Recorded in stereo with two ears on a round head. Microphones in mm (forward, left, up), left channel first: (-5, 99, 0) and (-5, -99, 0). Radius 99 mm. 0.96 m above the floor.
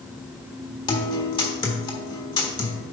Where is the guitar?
20° left (ahead or behind), 1.3 m.